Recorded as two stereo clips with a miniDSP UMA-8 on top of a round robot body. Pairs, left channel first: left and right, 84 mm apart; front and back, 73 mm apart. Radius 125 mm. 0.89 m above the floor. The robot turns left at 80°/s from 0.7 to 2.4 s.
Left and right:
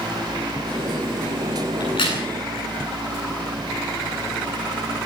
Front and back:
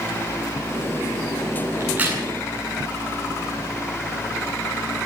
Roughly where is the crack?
Behind left.